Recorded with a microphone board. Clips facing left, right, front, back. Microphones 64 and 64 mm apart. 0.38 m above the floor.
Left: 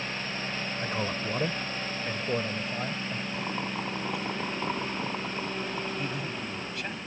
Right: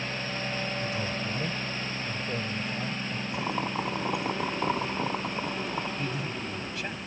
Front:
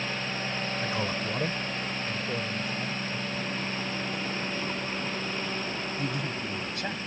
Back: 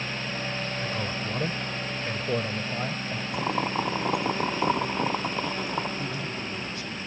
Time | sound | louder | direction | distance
0.8 | a man speaking | left 1 dB, front 1 dB | 60° left | ?
3.3 | boiling | right 5 dB, back 6 dB | 165° right | ?
6.0 | a man speaking | even, front 1 dB | straight ahead | ?